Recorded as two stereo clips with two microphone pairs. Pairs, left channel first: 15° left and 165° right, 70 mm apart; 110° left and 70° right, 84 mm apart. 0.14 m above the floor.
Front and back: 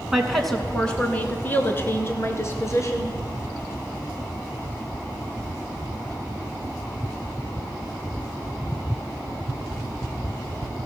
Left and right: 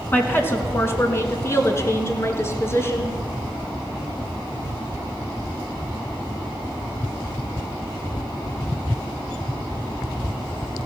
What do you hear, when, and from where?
0.1 s a woman speaking: 125° left, 1.3 m; by 3.1 s 55° left, 2.5 m